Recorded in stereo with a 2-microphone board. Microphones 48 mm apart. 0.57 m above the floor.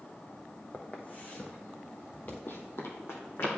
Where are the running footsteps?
55° left (ahead or behind), 1.2 m; by 3.5 s 70° left (ahead or behind), 2.5 m.